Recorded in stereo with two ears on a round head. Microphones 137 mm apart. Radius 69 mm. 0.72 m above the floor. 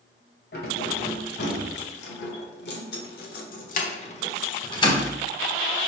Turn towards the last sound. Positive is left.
turn(degrees=20)  # may be behind; listen again after turning